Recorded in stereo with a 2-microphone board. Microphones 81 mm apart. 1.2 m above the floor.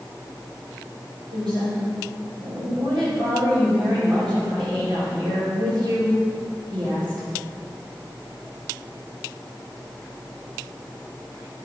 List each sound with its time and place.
1.3 s a woman speaking: 75° right (ahead or behind), 3 m